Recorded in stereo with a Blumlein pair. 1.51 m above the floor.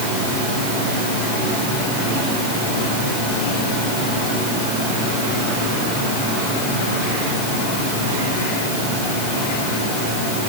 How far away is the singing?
I don't hear singing.